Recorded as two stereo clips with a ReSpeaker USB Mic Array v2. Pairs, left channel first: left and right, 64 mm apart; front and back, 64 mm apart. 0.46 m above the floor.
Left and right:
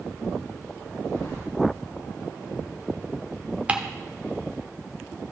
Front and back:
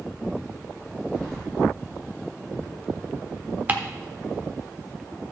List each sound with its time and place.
1.1 s keys jangling: 85° left, 4.5 m
3.7 s ticking: 140° right, 1.0 m